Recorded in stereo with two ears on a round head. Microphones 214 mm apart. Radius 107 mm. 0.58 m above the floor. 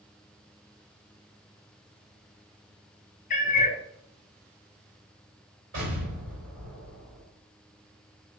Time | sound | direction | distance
3.3 | a cat meowing | 35° left (ahead or behind) | 0.8 m
5.7 | an explosion | 55° right (ahead or behind) | 2.5 m